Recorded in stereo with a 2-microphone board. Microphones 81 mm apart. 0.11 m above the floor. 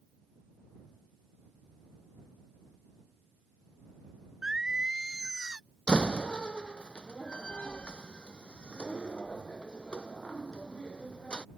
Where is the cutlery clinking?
No cutlery clinking in this recording.